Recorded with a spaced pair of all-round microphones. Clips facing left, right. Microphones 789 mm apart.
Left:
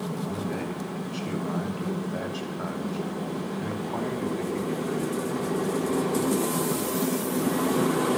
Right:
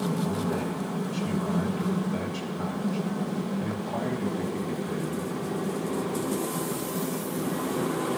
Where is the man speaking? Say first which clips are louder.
Right 2 dB; 45° right (ahead or behind), 5 m; by 5.4 s 80° right, 4.5 m.